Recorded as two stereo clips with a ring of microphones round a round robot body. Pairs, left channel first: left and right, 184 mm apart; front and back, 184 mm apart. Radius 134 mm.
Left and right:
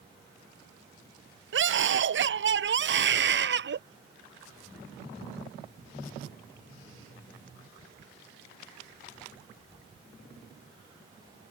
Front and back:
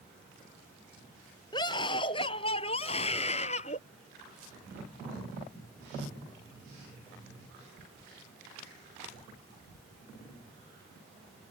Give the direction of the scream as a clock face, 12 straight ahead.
3 o'clock.